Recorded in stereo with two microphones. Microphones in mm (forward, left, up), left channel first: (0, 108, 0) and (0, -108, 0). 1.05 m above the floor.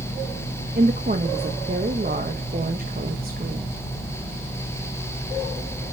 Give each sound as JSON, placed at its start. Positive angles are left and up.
{"t": 0.8, "sound": "a woman speaking", "side_deg": -45, "distance_m": 1.3}